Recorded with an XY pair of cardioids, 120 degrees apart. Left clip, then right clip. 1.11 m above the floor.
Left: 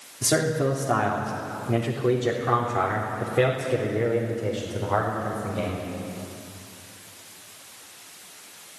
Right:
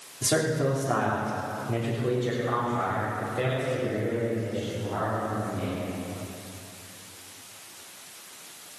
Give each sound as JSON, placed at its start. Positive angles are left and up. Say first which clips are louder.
{"t": 0.2, "sound": "a man speaking", "louder": "left 2 dB", "azimuth_deg": 15, "distance_m": 3.5}